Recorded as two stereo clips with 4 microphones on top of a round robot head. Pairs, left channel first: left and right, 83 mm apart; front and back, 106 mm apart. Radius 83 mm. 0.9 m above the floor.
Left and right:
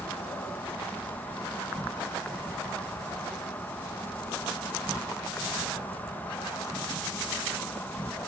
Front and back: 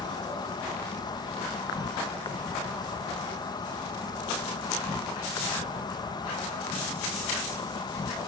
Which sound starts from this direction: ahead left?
An insect, at 0.0 s.